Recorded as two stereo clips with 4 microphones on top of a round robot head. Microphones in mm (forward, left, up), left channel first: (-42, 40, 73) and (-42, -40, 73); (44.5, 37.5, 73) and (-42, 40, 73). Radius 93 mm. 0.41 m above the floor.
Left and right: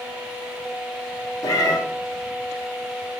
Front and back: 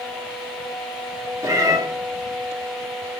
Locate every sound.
1.4 s a cat meowing: 125° left, 0.8 m